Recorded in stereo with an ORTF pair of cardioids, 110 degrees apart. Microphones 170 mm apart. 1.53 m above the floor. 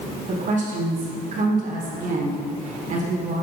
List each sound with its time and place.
0.3 s a woman speaking: 45° right, 1.9 m